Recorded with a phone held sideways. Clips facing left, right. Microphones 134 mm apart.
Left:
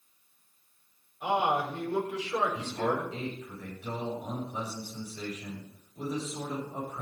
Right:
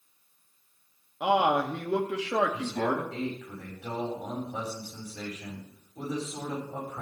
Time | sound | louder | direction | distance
1.2 | a man speaking | right 4 dB | 80° right | 2 m
2.5 | a man speaking | right 2 dB | 65° right (ahead or behind) | 5.5 m